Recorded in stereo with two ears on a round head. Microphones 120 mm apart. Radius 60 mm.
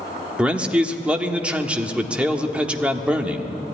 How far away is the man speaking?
About 1.3 m.